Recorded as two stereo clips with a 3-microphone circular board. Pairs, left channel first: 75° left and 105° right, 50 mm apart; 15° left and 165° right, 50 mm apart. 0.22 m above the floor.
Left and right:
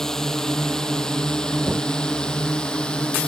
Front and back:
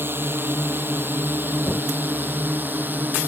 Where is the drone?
155° left; by 3.3 s 150° left.